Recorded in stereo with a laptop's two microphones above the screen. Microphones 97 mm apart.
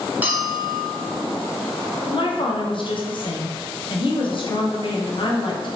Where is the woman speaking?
55° left (ahead or behind), 0.6 m.